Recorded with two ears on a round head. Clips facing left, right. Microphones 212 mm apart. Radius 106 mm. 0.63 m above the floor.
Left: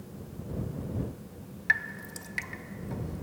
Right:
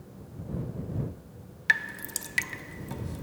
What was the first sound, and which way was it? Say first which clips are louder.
Dripping: right 4 dB; 45° right (ahead or behind).